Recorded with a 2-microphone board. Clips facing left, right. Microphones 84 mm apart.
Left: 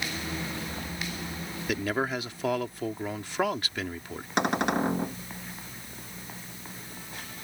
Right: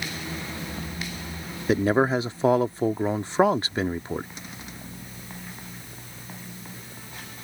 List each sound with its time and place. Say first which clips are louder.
1.7 s a man speaking: right 8 dB; 30° right (ahead or behind)
4.4 s a cupboard door: left 16 dB; 70° left (ahead or behind)